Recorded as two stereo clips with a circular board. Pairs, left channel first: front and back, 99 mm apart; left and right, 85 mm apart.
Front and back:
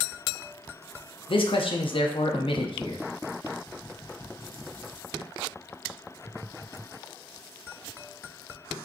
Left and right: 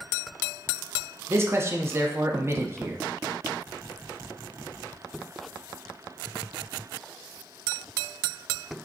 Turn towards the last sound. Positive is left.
turn(degrees=-30)